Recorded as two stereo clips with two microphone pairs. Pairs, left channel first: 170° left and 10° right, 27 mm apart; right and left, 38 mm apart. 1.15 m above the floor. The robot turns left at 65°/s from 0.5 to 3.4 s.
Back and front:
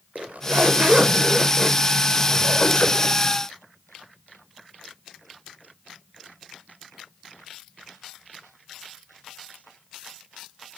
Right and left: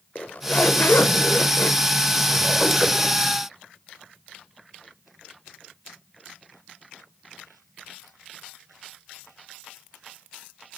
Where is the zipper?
35° right, 0.5 m; by 3.2 s 150° left, 0.5 m.